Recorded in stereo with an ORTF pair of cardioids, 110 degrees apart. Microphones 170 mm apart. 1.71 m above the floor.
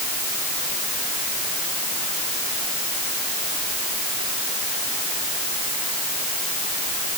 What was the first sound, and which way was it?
Only background noise.